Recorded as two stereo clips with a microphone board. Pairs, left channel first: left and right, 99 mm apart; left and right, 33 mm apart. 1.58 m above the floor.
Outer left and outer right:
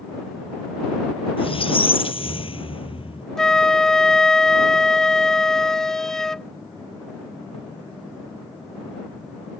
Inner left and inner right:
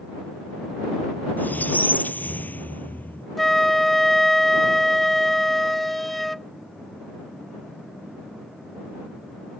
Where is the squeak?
70° left (ahead or behind).